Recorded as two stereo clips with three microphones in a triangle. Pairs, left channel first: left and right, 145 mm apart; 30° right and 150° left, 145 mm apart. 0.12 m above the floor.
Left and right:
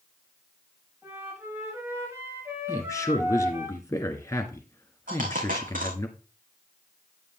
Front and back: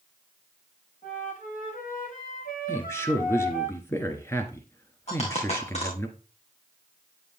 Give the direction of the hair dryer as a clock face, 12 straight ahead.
No hair dryer in this recording.